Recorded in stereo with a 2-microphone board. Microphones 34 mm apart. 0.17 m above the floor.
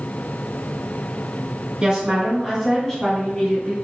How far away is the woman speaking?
About 1.1 m.